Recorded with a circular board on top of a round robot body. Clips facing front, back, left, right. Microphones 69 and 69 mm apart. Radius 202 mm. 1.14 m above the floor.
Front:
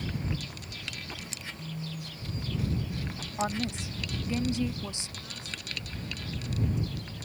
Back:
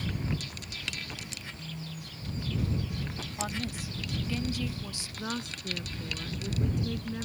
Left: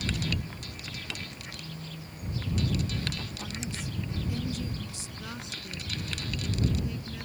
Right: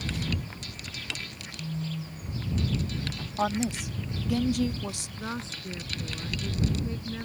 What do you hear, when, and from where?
1.6 s a phone buzzing: 75° right
3.4 s a woman speaking: 70° right
5.2 s a woman speaking: 150° right